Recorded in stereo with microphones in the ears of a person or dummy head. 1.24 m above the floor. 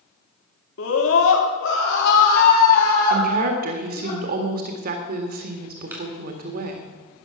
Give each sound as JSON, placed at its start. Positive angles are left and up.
{"t": 0.8, "sound": "a scream", "side_deg": 75, "distance_m": 2.5}
{"t": 3.1, "sound": "a woman speaking", "side_deg": -55, "distance_m": 1.9}
{"t": 5.9, "sound": "a clap", "side_deg": -10, "distance_m": 4.5}